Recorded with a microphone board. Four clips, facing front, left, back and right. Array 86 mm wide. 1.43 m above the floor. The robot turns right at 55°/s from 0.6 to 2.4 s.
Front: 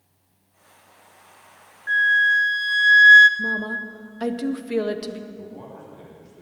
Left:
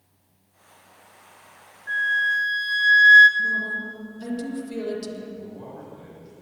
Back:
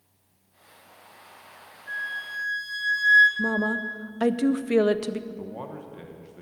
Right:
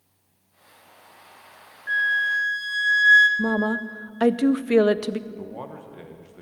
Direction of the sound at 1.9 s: 15° right.